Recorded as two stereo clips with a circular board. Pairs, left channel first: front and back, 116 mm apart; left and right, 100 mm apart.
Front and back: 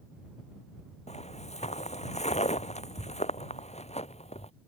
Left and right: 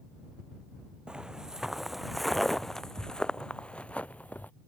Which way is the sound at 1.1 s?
10° right.